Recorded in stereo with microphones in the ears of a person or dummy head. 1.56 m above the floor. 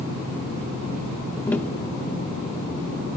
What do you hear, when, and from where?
1.5 s tapping: centre (ahead or behind), 0.7 m